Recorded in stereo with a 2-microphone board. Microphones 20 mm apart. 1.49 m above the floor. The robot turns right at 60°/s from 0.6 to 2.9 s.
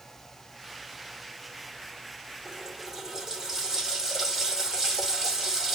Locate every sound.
2.5 s a running tap: 50° right (ahead or behind), 3.5 m; by 5.8 s 25° right (ahead or behind), 3.5 m